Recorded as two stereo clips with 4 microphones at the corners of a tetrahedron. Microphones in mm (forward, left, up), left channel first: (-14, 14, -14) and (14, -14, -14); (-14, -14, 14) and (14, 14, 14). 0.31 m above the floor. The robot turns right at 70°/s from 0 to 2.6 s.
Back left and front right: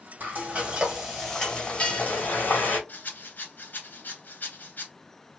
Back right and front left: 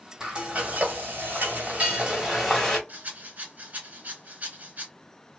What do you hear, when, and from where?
0.2 s frying: 25° right, 1.5 m; by 2.8 s 145° left, 1.5 m
2.9 s a rattle: 95° left, 1.0 m